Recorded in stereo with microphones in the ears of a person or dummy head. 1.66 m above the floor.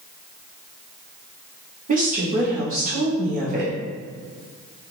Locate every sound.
1.9 s a woman speaking: 45° right (ahead or behind), 0.9 m